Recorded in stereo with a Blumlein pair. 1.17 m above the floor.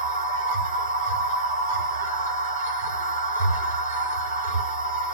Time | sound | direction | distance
0.0 | a machine running | 70° right | 1.2 m